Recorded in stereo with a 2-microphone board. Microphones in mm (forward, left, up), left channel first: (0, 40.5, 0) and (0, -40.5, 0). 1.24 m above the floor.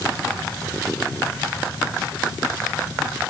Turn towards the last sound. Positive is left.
No sound to turn to.